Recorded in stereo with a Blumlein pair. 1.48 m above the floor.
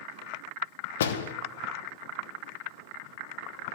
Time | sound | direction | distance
1.0 | a door slam | 60° left | 0.9 m